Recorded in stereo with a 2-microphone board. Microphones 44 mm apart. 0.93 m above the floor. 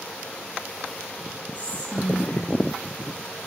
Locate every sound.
1.6 s whispering: 35° left (ahead or behind), 4.5 m